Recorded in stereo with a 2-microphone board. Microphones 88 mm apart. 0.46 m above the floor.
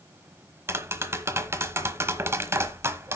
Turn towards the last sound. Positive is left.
turn(degrees=-30)  # may be behind; listen again after turning